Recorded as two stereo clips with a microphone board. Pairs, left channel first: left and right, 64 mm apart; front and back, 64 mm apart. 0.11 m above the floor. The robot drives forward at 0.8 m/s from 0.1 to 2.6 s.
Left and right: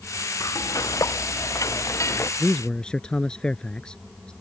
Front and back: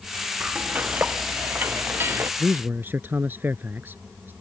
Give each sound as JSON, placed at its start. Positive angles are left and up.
{"t": 0.4, "sound": "frying", "azimuth_deg": 110}
{"t": 2.4, "sound": "a man speaking", "azimuth_deg": 150}